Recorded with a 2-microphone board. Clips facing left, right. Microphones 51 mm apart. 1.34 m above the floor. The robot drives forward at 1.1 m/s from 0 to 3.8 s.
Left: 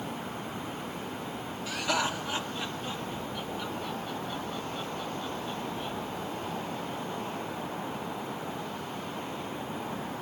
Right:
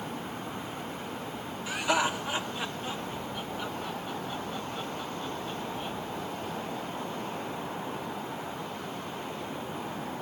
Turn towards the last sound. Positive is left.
turn(degrees=-10)  # may be behind; listen again after turning